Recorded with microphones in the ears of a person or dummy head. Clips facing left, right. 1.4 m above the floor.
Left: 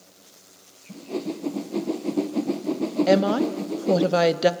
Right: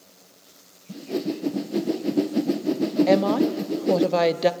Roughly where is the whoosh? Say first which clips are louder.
Right 3 dB; centre.